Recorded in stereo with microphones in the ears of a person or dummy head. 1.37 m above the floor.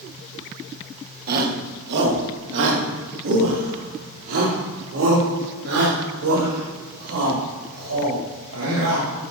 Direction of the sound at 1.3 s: 50° right (ahead or behind).